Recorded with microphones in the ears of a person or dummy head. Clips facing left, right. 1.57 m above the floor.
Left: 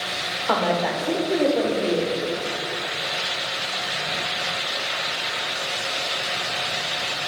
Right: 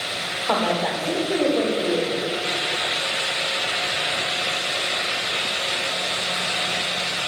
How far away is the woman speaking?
About 1.0 m.